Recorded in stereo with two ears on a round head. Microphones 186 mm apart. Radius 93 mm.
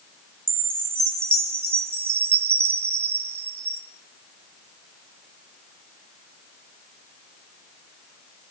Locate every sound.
0.5 s a chime: 10° right (ahead or behind), 3 m